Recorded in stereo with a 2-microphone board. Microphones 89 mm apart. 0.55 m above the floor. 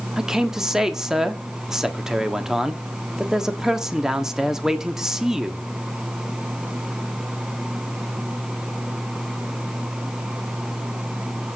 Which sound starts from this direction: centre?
A man speaking, at 0.2 s.